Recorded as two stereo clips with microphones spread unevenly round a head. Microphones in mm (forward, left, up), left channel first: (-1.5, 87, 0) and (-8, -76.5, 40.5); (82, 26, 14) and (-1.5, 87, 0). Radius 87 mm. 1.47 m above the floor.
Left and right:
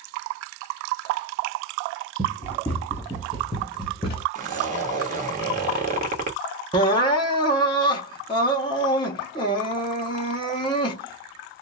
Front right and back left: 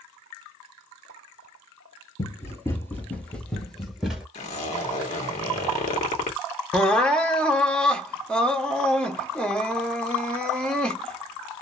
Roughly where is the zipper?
Ahead right.